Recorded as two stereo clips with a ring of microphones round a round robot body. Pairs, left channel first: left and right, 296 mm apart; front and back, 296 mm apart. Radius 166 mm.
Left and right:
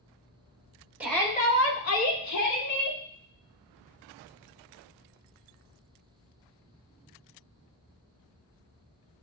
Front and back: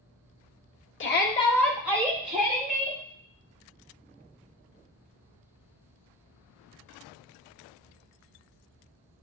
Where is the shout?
10° right, 0.8 m; by 3.0 s 115° left, 2 m.